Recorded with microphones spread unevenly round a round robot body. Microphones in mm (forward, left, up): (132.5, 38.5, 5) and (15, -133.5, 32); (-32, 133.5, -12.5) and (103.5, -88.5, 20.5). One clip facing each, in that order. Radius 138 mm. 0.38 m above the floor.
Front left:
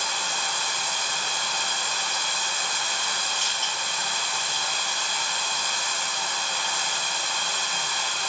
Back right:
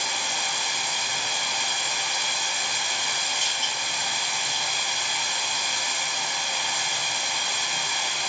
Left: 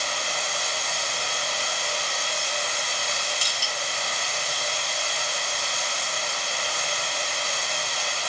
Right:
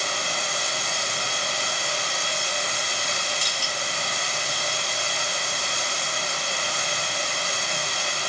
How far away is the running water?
About 0.8 m.